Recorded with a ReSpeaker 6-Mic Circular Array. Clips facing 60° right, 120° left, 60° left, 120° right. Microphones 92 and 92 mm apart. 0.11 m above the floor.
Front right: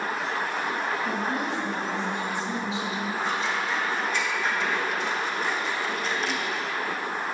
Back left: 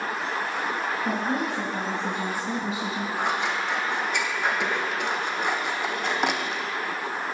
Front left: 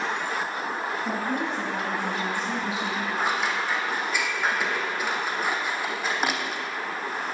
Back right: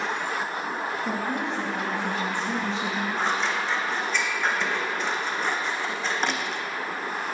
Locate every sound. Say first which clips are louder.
1.0 s a woman speaking: back left 1 dB, front left 1 dB; 130° left, 3 m; by 3.1 s 145° left, 1.6 m
3.2 s scissors: back left 2 dB, even; 140° left, 1.1 m